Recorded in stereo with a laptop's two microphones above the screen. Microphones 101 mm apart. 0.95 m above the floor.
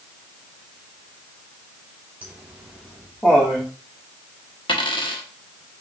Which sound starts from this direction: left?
A dropped coin, at 4.7 s.